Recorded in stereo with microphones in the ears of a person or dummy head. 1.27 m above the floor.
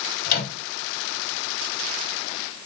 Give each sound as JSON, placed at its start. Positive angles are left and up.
{"t": 0.2, "sound": "a microwave", "side_deg": 50, "distance_m": 1.5}